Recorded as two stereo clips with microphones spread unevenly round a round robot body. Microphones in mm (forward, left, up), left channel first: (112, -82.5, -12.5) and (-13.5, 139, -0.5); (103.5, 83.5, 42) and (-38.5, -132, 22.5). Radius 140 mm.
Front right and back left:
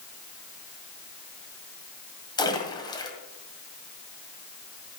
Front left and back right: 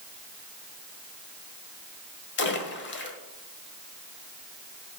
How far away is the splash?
About 1.7 m.